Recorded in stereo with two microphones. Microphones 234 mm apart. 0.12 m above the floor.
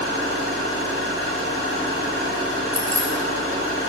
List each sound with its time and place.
0.0 s an engine running: 55° right (ahead or behind), 2.5 m
2.7 s keys jangling: 15° right (ahead or behind), 1.1 m